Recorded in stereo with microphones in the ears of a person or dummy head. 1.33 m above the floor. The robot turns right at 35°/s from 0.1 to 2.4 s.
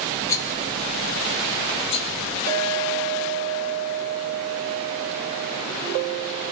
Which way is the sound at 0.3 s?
15° left (ahead or behind).